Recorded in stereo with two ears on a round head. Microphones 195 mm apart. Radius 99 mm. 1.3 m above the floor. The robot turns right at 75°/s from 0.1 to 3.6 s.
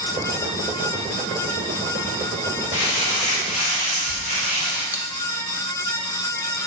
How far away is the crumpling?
About 4.5 m.